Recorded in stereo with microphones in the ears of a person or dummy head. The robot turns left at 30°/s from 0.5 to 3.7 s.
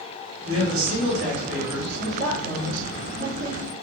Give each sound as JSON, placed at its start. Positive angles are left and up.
{"t": 0.5, "sound": "a man speaking", "azimuth_deg": -90, "distance_m": 2.5}
{"t": 2.0, "sound": "a woman speaking", "azimuth_deg": -115, "distance_m": 2.5}